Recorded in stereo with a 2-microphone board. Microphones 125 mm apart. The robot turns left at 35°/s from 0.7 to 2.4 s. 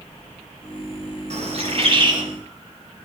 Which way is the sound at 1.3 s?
110° right.